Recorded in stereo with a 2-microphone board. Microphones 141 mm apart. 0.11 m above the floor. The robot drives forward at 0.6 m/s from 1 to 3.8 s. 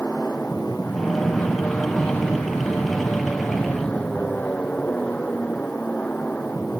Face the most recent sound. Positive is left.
turn(degrees=10)  # may be behind; listen again after turning